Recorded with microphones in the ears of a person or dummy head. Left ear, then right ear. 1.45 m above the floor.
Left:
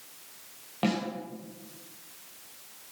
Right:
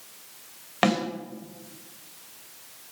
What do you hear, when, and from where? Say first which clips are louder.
0.8 s a snare drum: right 7 dB; 55° right (ahead or behind), 4 m